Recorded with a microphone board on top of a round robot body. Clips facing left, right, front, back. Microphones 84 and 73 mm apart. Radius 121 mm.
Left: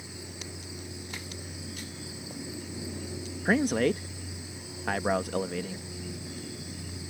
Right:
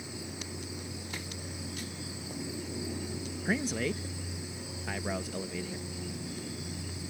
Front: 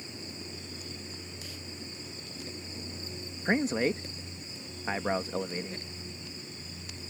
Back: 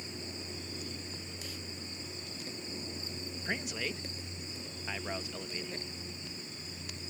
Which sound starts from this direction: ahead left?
A man speaking, at 3.5 s.